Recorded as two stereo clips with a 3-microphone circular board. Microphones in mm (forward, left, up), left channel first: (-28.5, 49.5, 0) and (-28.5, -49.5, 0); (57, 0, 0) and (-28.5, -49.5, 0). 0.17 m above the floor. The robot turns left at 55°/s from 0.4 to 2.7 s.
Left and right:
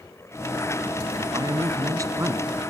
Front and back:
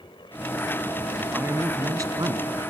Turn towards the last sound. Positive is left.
turn(degrees=-160)